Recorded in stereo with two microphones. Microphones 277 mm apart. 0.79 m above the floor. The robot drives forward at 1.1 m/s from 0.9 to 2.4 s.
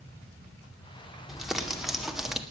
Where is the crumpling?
Centre (ahead or behind), 2.5 m.